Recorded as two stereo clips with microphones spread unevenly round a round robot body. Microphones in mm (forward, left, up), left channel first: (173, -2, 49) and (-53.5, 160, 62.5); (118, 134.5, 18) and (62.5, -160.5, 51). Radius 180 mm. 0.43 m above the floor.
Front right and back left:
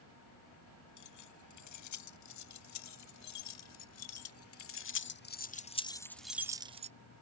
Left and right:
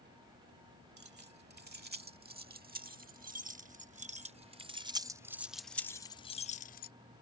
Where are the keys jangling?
40° right; by 6.9 s 90° left.